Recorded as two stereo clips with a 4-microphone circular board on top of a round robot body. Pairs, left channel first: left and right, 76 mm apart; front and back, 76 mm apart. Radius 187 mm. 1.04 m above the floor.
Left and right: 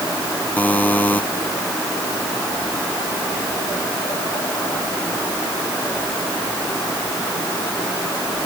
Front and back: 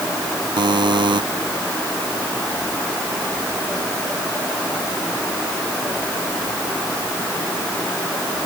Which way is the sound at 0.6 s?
160° left.